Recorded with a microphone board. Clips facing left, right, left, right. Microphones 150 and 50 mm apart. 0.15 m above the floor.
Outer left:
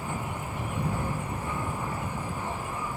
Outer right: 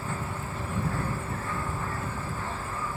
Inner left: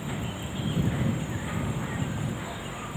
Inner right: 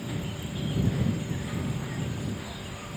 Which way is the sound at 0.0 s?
15° left (ahead or behind).